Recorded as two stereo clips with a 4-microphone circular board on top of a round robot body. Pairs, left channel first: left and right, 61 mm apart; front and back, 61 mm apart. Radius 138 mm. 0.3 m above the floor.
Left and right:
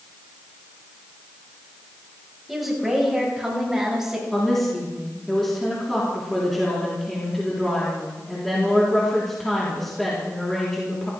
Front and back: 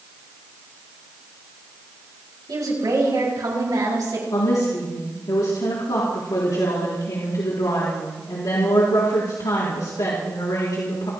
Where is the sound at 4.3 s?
5° left, 4 m.